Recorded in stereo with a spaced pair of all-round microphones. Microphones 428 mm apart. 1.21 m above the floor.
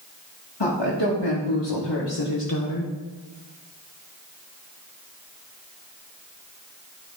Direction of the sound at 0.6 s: 75° left (ahead or behind).